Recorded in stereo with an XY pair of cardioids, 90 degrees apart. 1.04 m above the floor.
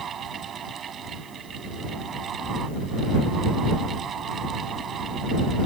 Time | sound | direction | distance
0.0 | a fan | 60° right | ?